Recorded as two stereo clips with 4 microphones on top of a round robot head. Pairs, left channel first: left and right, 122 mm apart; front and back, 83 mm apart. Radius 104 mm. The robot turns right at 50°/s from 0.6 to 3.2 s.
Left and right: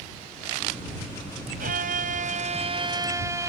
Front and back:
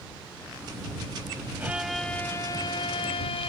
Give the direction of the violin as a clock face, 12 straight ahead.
3 o'clock.